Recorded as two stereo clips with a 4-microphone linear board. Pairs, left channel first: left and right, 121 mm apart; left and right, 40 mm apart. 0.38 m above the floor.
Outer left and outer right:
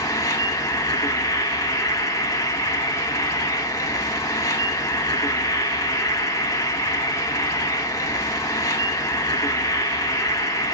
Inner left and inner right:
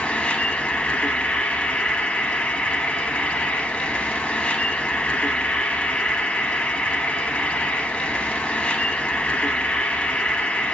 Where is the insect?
30° left (ahead or behind), 0.8 m.